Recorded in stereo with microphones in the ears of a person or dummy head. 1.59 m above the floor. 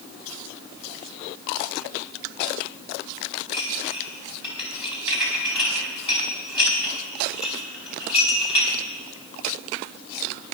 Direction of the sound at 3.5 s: 35° left (ahead or behind).